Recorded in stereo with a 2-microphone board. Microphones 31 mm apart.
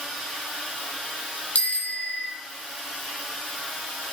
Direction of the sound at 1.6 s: 50° left (ahead or behind).